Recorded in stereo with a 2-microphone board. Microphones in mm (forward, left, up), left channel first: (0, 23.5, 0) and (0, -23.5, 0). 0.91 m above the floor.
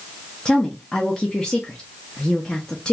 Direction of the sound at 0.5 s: 20° left (ahead or behind).